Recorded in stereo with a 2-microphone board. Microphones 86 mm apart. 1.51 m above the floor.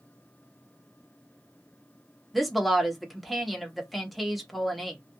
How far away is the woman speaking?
About 0.9 m.